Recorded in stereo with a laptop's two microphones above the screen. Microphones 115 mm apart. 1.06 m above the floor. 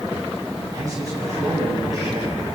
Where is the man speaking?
35° right (ahead or behind), 8 m.